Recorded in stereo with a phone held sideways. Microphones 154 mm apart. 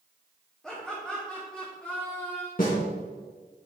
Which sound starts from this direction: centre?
Laughter, at 0.6 s.